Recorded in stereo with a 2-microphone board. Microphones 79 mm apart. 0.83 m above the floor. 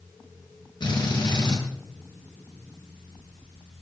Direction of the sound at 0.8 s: 70° left (ahead or behind).